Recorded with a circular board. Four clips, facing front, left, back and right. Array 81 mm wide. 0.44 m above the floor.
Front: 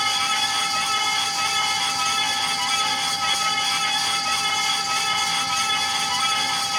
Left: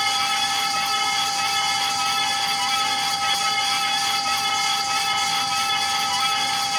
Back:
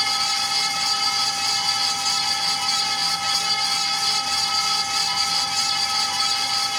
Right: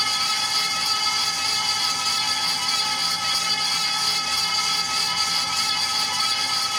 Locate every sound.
Only background noise.